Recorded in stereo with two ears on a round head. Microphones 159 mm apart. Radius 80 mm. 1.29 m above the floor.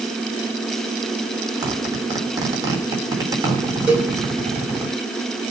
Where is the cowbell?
5° right (ahead or behind), 5.5 m.